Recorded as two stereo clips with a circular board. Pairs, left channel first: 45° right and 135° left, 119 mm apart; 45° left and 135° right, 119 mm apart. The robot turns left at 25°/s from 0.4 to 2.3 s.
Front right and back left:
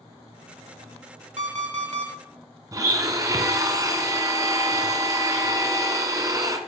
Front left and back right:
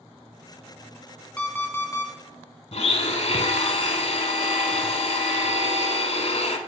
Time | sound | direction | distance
1.4 | an alarm clock | 125° left | 1.5 m
2.7 | a blender | 75° left | 0.9 m